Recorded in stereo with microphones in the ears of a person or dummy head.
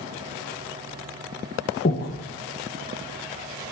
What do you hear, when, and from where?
1.9 s breathing: 45° left (ahead or behind), 0.7 m